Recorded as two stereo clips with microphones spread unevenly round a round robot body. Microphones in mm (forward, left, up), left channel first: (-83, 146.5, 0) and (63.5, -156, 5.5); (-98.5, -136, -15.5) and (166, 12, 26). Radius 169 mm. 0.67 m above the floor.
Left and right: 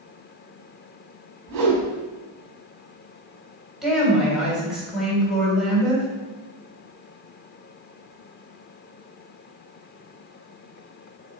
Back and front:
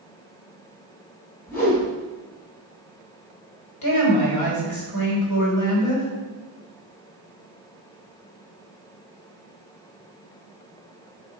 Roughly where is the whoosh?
Right.